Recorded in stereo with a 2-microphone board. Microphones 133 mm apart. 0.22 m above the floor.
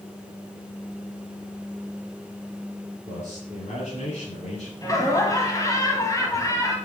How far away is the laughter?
About 1.8 m.